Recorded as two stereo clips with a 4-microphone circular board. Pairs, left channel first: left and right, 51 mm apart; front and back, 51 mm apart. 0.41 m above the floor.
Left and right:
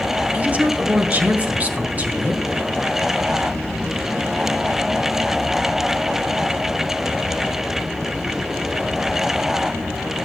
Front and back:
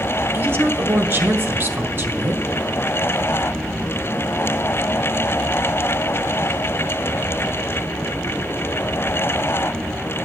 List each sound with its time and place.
0.3 s a woman speaking: 145° right, 1.8 m